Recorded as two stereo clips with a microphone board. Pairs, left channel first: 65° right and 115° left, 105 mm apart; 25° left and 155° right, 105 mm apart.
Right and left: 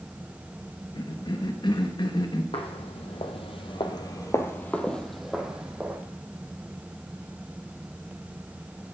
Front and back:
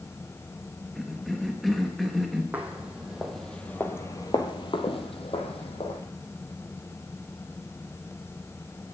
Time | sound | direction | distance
0.9 | a cough | 65° right | 1.2 m
2.5 | footsteps | 85° right | 2 m